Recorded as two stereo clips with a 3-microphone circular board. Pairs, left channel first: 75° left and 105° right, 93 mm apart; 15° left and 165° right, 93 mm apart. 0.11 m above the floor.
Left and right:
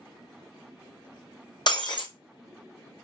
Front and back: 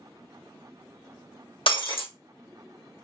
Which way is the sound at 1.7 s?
35° left.